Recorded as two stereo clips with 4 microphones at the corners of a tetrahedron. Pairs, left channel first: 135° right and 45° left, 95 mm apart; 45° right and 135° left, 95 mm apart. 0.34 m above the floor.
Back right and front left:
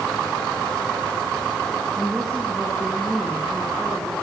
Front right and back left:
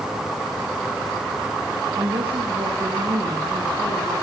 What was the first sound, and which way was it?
A woman speaking, 135° left.